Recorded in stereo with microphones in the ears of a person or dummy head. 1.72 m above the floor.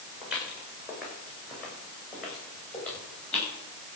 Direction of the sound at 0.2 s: 5° right (ahead or behind).